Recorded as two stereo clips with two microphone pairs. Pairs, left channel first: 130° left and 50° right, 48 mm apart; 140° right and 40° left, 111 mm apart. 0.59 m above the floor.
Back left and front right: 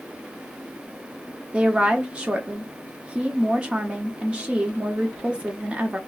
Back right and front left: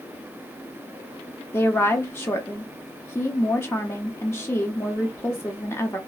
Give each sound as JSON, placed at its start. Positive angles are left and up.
{"t": 1.5, "sound": "a woman speaking", "azimuth_deg": -95, "distance_m": 0.7}